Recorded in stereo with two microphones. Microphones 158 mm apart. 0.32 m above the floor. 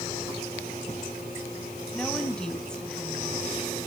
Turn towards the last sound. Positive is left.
turn(degrees=5)  # may be behind; listen again after turning